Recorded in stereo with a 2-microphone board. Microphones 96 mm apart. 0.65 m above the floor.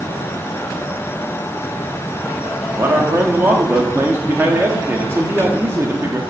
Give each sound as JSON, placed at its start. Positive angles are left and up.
{"t": 2.8, "sound": "a man speaking", "side_deg": -25, "distance_m": 1.4}